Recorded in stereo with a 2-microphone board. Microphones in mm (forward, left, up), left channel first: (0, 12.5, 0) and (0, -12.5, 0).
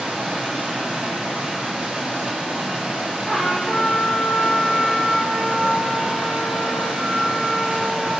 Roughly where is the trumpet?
Centre.